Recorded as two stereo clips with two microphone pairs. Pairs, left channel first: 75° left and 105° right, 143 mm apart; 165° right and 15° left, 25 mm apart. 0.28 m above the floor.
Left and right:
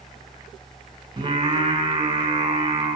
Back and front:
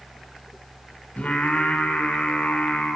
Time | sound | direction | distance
1.2 | singing | 155° right | 1.5 m